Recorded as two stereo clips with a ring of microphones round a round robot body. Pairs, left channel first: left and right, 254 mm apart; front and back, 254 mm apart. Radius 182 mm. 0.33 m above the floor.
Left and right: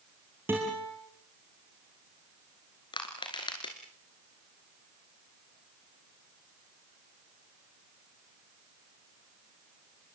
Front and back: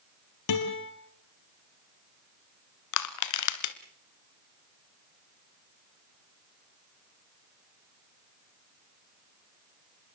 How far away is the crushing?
About 1.3 m.